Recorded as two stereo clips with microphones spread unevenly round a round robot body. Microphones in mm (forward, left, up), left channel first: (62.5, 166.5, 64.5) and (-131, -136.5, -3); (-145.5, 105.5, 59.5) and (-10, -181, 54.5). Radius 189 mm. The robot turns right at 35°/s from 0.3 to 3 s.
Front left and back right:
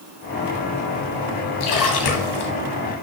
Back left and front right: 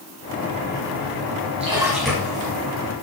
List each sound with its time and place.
1.6 s a splash: 10° left, 1.8 m; by 2.5 s 40° left, 1.8 m